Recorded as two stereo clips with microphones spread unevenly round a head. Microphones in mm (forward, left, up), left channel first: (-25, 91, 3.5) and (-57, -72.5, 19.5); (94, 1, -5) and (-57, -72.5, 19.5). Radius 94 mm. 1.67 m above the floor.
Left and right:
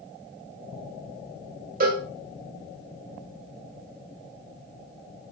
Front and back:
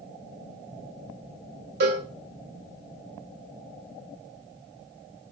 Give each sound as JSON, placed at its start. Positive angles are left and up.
{"t": 1.8, "sound": "a cowbell", "azimuth_deg": -135, "distance_m": 1.0}